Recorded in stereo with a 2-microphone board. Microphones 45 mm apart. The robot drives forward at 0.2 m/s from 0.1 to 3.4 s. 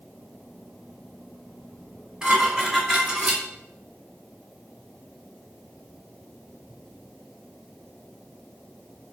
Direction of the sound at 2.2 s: 15° right (ahead or behind).